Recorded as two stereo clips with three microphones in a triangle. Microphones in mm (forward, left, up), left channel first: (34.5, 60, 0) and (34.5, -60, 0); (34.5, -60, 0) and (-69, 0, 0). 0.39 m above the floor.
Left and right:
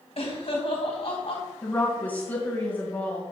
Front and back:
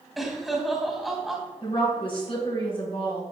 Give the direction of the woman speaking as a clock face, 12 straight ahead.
12 o'clock.